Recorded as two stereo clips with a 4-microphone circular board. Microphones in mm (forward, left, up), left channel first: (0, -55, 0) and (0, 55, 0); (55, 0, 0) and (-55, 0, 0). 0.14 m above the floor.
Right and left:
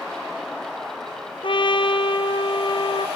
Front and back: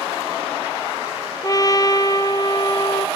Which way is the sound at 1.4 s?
55° right.